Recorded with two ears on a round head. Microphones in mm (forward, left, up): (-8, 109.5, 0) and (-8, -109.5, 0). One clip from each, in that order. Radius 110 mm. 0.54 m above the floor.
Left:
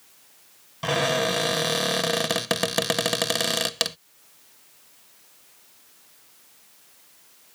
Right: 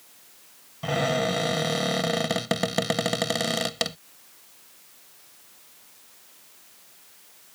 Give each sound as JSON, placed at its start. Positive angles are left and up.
{"t": 0.8, "sound": "a cupboard door", "side_deg": 40}